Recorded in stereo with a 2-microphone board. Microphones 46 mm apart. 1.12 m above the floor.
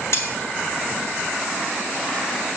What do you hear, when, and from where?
0.1 s cutlery clinking: 70° left (ahead or behind), 2 m